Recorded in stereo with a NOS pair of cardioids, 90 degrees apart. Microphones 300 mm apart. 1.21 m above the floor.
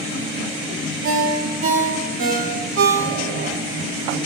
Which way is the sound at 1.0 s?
45° right.